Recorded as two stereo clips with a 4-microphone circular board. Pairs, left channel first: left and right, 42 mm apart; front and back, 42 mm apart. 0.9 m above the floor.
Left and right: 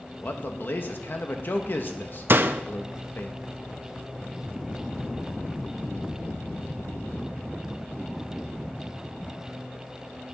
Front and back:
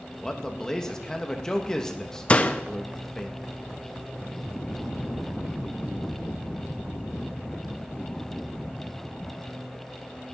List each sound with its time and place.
0.2 s a man speaking: 75° left, 1.3 m
2.3 s a door slam: 55° right, 0.6 m